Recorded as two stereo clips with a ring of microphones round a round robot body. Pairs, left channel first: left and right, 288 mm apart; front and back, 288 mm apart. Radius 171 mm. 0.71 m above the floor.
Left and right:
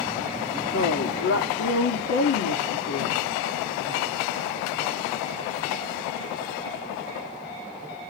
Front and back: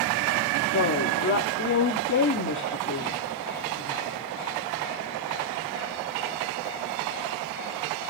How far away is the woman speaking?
About 1.8 m.